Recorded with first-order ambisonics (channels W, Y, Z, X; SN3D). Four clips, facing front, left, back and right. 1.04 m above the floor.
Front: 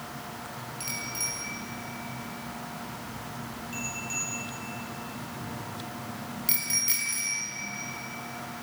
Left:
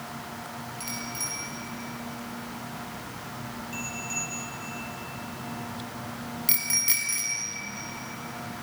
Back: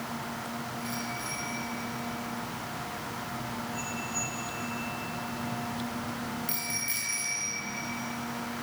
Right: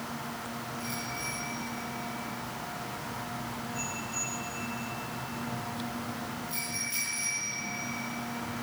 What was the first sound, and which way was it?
A bicycle bell, 40° left.